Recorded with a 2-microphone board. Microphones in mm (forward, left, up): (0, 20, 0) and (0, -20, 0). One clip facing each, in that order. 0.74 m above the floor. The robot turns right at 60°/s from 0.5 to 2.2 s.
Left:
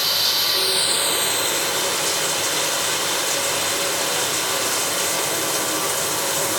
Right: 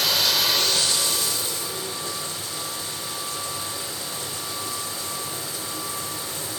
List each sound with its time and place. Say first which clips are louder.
0.0 s running water: even; straight ahead, 0.9 m; by 6.6 s 105° left, 0.9 m